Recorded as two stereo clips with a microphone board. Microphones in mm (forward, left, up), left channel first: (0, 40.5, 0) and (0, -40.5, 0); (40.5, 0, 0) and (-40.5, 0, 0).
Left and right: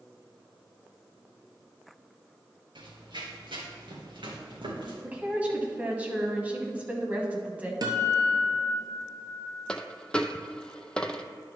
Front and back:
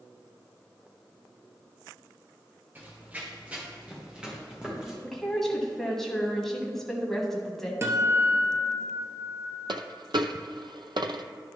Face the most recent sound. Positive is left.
turn(degrees=165)